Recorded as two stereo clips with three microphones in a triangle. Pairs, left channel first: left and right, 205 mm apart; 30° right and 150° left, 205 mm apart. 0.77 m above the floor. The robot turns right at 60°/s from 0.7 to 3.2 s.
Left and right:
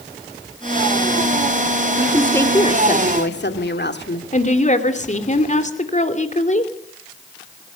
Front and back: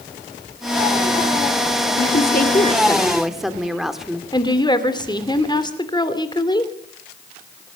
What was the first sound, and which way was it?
A woman speaking, 15° right.